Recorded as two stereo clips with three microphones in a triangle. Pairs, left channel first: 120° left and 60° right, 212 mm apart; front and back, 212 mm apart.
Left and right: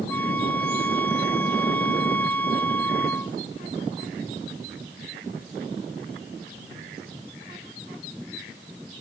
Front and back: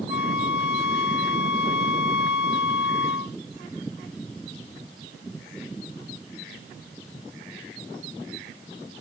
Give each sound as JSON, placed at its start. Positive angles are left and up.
{"t": 0.1, "sound": "a flute", "azimuth_deg": 40}